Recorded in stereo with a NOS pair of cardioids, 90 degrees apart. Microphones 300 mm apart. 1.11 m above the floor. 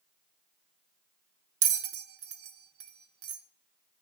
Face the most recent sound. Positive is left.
turn(degrees=-50)